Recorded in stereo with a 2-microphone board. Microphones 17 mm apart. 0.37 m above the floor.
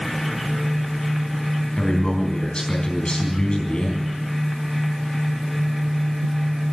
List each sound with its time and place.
1.8 s a man speaking: 65° left (ahead or behind), 4 m